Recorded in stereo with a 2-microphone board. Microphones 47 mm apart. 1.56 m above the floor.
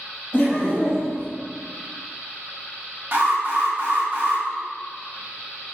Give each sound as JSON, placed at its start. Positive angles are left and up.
{"t": 0.3, "sound": "laughter", "side_deg": 35, "distance_m": 1.3}
{"t": 3.1, "sound": "an alarm", "side_deg": -45, "distance_m": 0.6}